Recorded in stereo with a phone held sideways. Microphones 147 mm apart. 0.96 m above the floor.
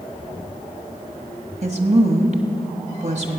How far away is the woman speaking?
About 1.5 m.